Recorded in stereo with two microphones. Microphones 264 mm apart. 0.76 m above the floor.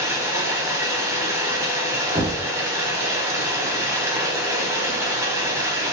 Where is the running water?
10° right (ahead or behind), 0.9 m.